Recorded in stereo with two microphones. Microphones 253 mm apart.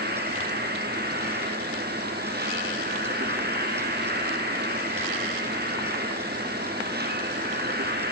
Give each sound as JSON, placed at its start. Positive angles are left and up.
{"t": 0.0, "sound": "an insect", "side_deg": -40, "distance_m": 2.0}